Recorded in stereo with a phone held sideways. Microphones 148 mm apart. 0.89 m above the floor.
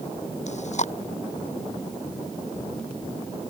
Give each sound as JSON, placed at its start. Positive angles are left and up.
{"t": 0.5, "sound": "chewing", "side_deg": 50}